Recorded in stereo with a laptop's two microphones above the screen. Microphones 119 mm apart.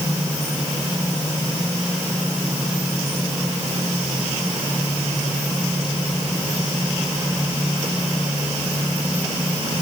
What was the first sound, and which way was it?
Only background noise.